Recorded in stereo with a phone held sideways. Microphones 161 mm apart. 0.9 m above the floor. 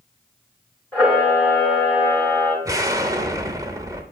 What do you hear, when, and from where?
0.9 s a camera shutter: 5° left (ahead or behind), 2.5 m
2.6 s an explosion: 20° right (ahead or behind), 0.8 m